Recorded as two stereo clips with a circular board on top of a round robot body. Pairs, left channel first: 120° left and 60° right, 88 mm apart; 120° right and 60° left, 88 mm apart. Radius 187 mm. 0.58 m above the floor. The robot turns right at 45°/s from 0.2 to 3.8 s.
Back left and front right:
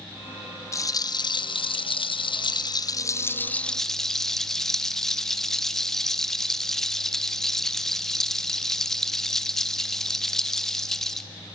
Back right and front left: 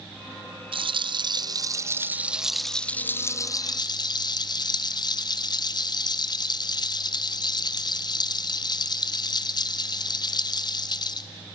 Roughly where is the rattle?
Ahead left.